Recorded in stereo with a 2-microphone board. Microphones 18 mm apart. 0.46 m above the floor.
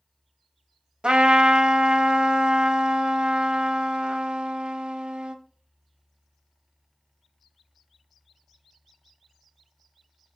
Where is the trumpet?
80° right, 0.5 m.